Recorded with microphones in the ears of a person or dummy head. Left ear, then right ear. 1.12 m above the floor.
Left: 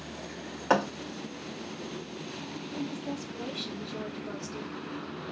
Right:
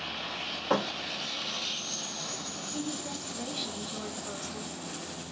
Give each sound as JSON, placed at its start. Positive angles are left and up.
{"t": 0.7, "sound": "a thud", "side_deg": 35, "distance_m": 0.7}
{"t": 2.7, "sound": "a woman speaking", "side_deg": -70, "distance_m": 4.0}